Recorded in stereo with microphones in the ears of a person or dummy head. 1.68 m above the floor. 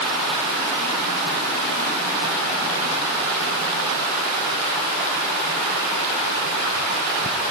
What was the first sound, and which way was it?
Only background noise.